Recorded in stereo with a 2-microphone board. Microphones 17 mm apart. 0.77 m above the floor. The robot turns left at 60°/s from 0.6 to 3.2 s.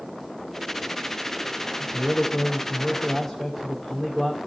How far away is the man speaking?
About 2 m.